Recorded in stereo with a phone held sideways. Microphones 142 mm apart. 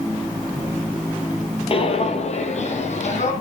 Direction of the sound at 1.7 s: 40° left (ahead or behind).